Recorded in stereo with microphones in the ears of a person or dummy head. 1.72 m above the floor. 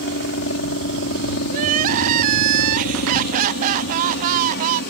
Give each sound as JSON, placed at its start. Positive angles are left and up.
{"t": 0.0, "sound": "a helicopter", "side_deg": 60}
{"t": 1.5, "sound": "crying", "side_deg": -45}